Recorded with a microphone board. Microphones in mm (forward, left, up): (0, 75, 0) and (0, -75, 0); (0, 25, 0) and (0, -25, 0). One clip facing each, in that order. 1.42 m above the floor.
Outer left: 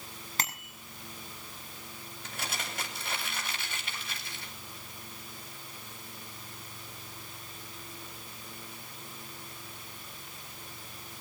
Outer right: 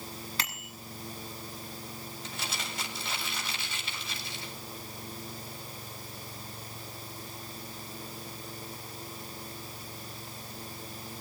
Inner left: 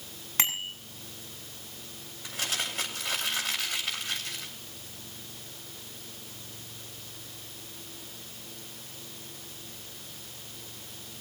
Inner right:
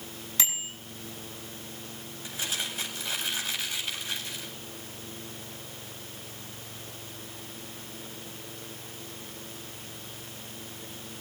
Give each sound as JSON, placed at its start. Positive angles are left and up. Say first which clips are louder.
{"t": 0.4, "sound": "a bicycle bell", "louder": "outer left 2 dB, inner left 4 dB", "side_deg": 45, "distance_m": 8.5}
{"t": 2.2, "sound": "crumpling", "louder": "outer left 2 dB, inner left 1 dB", "side_deg": 55, "distance_m": 8.5}